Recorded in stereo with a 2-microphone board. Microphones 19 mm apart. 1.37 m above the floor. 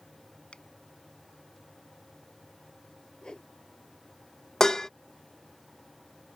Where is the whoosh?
45° left (ahead or behind).